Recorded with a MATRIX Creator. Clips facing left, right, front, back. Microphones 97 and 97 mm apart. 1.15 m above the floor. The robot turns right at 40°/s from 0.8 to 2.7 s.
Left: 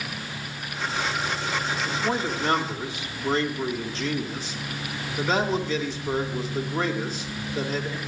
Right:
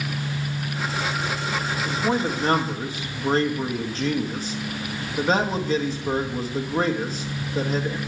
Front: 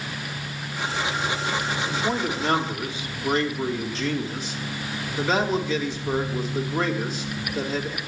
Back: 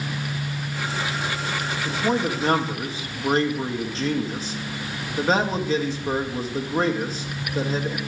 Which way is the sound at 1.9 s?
165° right.